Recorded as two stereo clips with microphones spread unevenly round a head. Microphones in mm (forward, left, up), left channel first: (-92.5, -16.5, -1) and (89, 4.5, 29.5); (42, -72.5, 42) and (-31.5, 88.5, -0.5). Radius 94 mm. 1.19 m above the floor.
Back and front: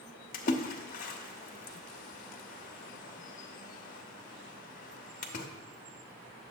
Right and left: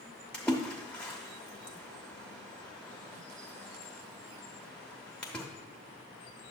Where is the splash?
135° right, 0.8 m.